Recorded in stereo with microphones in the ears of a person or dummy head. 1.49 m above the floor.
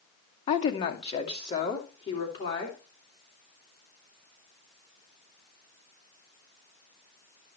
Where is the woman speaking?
40° left (ahead or behind), 0.9 m; by 2.8 s 35° left (ahead or behind), 4.5 m.